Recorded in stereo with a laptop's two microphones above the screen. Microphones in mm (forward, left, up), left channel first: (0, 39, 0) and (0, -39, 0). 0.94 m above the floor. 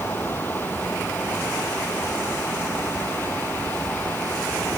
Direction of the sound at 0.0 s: 25° left (ahead or behind).